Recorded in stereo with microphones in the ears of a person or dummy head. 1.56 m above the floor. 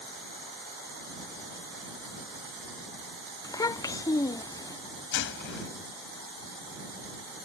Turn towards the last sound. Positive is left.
turn(degrees=70)  # may be behind; listen again after turning